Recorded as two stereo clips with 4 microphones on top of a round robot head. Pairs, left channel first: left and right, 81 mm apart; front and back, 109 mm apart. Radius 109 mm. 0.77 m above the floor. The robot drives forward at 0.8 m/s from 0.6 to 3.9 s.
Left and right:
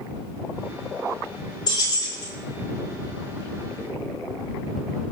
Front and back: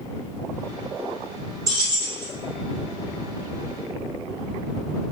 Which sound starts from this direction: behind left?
Keys jangling, at 1.7 s.